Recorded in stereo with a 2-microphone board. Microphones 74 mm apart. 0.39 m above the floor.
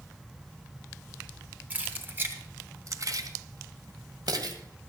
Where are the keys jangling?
20° right (ahead or behind), 2 m; by 4.6 s 60° right (ahead or behind), 2.0 m.